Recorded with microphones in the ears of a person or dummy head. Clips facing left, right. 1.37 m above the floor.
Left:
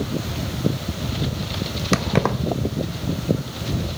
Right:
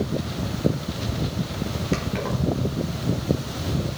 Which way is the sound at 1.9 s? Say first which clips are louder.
Left 8 dB; 65° left (ahead or behind).